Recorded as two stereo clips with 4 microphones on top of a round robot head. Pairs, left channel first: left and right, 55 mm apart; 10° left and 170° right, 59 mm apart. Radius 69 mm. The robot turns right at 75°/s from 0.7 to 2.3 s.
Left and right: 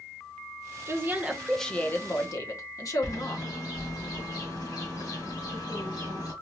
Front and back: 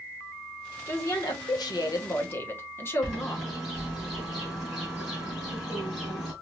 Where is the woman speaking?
45° right, 1.0 m; by 3.4 s 60° left, 1.0 m.